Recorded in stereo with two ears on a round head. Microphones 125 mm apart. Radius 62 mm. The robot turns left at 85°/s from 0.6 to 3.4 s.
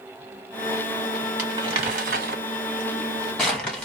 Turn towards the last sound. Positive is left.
turn(degrees=5)  # may be behind; listen again after turning